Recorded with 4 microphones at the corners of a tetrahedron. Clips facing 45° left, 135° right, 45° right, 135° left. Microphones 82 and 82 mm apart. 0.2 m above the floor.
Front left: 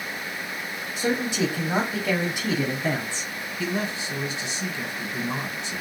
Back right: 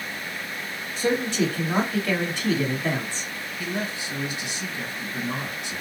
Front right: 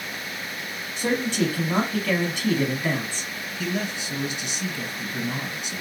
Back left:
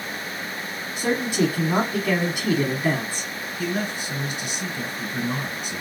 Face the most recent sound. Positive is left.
turn(degrees=105)